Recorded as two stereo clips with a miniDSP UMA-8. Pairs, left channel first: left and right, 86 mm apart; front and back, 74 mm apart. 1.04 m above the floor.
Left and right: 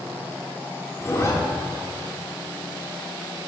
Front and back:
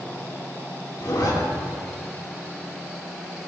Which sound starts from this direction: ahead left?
A zipper, at 1.0 s.